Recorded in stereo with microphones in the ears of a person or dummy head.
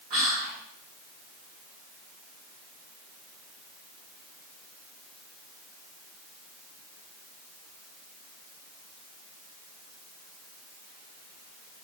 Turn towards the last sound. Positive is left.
turn(degrees=-40)  # may be behind; listen again after turning